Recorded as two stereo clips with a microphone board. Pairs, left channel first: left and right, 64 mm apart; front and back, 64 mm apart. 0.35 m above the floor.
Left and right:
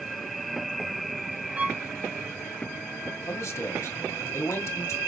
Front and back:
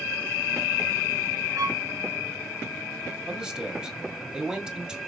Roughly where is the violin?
Behind right.